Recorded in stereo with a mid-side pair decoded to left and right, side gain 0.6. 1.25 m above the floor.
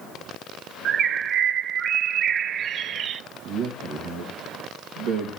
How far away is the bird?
About 0.7 m.